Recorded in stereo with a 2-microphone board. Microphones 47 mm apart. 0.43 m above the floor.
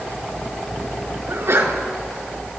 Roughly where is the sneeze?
Right.